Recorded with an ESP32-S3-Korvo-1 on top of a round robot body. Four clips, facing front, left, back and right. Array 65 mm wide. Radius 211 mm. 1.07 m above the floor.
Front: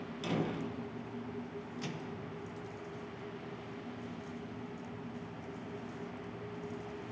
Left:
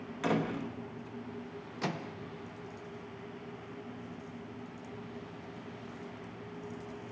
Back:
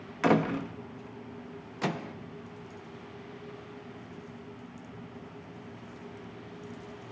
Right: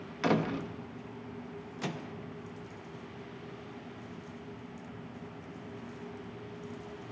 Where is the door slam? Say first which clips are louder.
Right 2 dB, back 10 dB; 170° right, 1.1 m.